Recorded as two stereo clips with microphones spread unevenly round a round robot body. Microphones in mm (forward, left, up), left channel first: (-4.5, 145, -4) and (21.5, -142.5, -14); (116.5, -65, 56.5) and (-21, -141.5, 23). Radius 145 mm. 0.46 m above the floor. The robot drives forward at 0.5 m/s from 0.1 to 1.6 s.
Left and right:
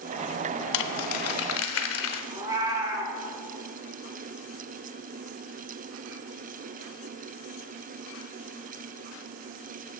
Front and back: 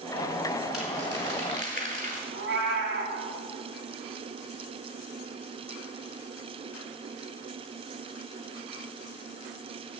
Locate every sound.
0.7 s crumpling: 115° left, 0.6 m; by 2.2 s 140° left, 0.9 m
2.3 s a cat meowing: 160° right, 1.3 m